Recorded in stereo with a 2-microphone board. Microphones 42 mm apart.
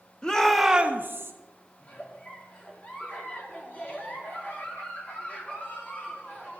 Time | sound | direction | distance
0.2 | a shout | 20° left (ahead or behind) | 1.0 m
1.8 | a giggle | 35° left (ahead or behind) | 1.0 m